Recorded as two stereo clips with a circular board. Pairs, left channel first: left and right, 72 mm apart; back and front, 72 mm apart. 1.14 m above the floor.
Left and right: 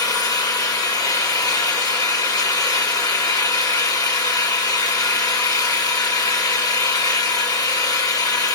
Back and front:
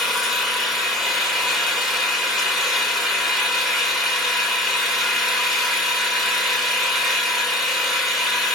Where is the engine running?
90° left, 1.2 m.